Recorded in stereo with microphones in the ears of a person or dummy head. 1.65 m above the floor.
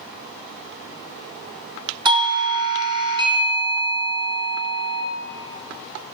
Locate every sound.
2.0 s a doorbell: 20° right (ahead or behind), 0.6 m